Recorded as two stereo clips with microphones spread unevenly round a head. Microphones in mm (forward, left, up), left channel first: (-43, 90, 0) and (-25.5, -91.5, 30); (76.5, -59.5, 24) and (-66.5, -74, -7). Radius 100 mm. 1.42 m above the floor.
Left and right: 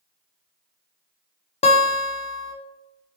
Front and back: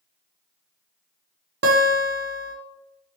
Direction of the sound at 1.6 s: 155° left.